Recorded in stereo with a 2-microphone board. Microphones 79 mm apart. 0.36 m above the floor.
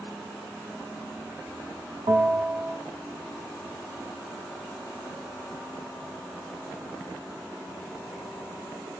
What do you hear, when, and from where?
2.1 s a bell: 80° right, 0.8 m